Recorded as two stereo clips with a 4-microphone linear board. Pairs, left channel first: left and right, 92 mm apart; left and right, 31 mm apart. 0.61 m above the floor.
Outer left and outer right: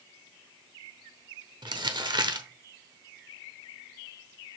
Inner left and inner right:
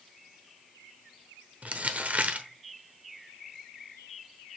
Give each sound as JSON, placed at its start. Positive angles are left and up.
{"t": 1.6, "sound": "crumpling", "side_deg": -55, "distance_m": 0.8}